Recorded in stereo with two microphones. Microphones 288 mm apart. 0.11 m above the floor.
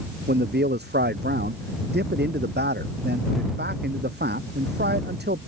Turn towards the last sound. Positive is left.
turn(degrees=-35)  # may be behind; listen again after turning